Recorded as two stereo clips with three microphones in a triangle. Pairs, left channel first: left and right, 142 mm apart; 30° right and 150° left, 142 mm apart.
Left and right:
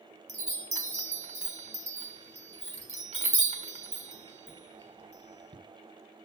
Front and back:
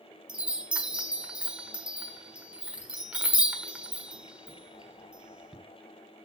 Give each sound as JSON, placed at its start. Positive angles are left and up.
{"t": 0.3, "sound": "a chime", "azimuth_deg": -130, "distance_m": 1.3}